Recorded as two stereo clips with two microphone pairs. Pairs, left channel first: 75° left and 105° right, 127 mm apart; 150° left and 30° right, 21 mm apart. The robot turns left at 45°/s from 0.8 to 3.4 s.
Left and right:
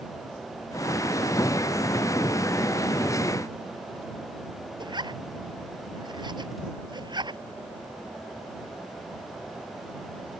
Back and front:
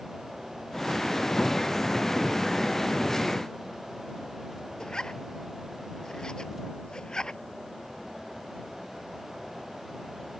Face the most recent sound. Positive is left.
turn(degrees=-160)